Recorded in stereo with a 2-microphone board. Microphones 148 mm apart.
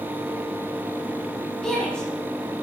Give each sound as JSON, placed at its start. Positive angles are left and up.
{"t": 1.6, "sound": "a shout", "side_deg": 5, "distance_m": 7.5}